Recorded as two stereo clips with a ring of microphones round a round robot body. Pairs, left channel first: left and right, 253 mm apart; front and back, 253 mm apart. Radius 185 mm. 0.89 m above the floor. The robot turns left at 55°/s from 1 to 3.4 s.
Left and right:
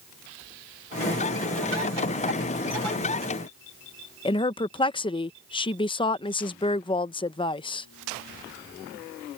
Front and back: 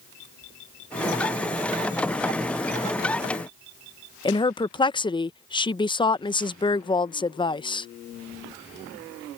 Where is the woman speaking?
45° left.